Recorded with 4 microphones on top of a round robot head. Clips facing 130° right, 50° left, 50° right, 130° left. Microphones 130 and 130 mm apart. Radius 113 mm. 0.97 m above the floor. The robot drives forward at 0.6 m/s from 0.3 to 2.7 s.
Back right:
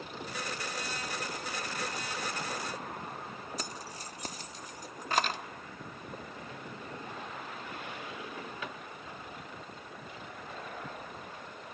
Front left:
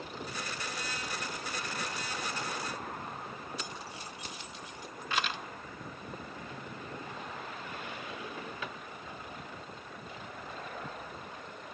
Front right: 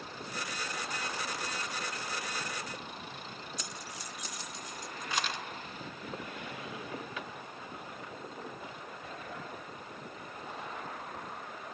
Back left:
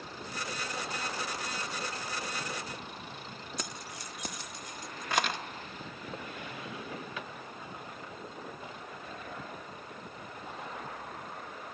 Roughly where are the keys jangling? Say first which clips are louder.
Back right 1 dB, back left 2 dB; behind.